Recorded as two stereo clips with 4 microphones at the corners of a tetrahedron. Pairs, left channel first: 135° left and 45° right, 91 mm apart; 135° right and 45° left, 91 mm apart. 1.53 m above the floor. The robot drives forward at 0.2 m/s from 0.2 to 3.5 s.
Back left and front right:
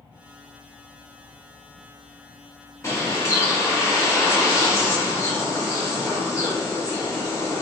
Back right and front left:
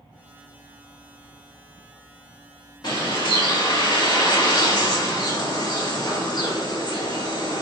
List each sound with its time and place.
2.8 s a bird: 170° right, 1.3 m